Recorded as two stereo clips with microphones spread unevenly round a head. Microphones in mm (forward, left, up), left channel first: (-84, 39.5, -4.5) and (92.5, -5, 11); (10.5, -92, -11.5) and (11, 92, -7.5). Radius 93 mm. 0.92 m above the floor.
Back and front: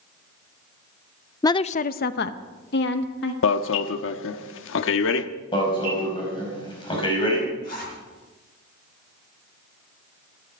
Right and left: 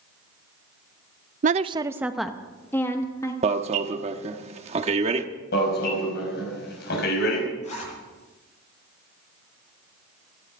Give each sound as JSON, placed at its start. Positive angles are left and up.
{"t": 1.4, "sound": "a woman speaking", "azimuth_deg": 110, "distance_m": 0.5}
{"t": 3.4, "sound": "an alarm", "azimuth_deg": 150, "distance_m": 0.9}
{"t": 5.5, "sound": "an alarm", "azimuth_deg": -125, "distance_m": 5.0}
{"t": 7.6, "sound": "a zipper", "azimuth_deg": -145, "distance_m": 9.5}